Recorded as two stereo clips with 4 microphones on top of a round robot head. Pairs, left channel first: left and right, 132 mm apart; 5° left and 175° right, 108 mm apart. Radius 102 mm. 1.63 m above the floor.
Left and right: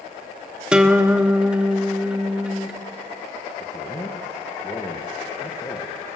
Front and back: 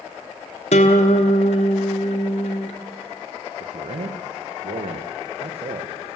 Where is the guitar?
10° right, 1.5 m.